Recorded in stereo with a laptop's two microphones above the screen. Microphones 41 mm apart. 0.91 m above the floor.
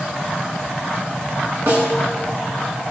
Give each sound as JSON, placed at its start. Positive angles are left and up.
{"t": 1.7, "sound": "a snare drum", "side_deg": -80, "distance_m": 9.0}